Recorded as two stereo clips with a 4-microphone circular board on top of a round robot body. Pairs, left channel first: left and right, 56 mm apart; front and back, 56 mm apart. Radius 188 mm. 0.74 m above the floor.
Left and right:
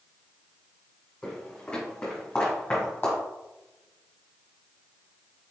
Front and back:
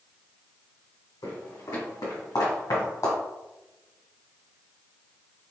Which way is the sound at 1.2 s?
15° left.